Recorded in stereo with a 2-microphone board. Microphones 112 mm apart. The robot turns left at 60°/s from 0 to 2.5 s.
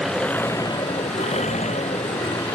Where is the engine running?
175° right; by 2.6 s 35° left.